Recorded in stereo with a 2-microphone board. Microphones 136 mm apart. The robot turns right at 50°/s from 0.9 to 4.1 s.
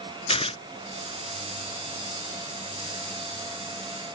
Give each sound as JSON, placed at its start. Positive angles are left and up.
{"t": 0.3, "sound": "tearing paper", "side_deg": 45}